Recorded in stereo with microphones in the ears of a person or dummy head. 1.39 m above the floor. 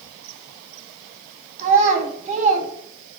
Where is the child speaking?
40° right (ahead or behind), 0.6 m.